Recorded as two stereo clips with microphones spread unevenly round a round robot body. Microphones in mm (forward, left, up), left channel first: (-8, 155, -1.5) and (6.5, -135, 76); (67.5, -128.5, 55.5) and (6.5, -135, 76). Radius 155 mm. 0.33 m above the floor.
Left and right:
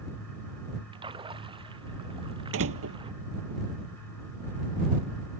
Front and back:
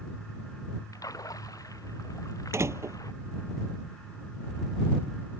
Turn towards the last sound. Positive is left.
turn(degrees=-135)